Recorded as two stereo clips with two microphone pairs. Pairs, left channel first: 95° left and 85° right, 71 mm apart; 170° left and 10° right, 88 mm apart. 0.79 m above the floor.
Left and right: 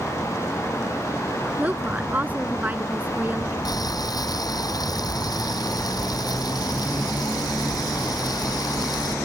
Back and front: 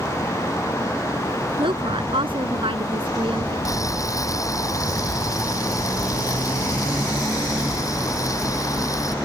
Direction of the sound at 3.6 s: 120° left.